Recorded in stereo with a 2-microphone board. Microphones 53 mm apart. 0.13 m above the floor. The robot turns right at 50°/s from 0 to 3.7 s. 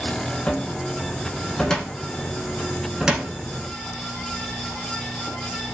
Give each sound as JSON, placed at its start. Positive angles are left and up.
{"t": 0.5, "sound": "a cupboard door", "side_deg": 20, "distance_m": 0.5}